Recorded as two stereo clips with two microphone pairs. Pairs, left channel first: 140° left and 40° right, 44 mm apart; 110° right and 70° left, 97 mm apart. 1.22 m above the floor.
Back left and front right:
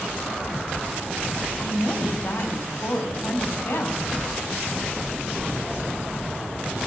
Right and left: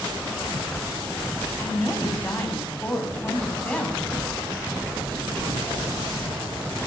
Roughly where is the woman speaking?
Behind.